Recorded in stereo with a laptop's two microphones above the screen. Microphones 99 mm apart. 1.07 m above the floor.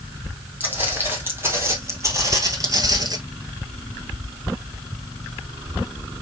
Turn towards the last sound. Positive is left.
turn(degrees=-40)  # may be behind; listen again after turning